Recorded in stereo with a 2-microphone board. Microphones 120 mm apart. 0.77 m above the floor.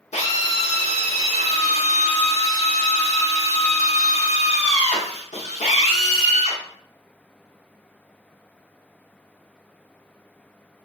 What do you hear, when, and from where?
0.1 s a drill: 70° left (ahead or behind), 1.1 m